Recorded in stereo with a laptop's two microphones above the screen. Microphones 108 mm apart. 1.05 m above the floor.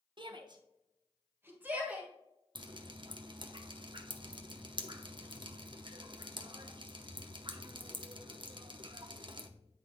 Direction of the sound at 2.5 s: 45° right (ahead or behind).